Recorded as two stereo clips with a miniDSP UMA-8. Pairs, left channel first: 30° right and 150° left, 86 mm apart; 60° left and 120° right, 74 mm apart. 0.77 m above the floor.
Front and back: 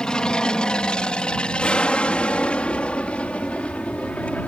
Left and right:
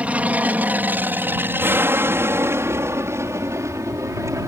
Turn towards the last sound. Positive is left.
turn(degrees=-100)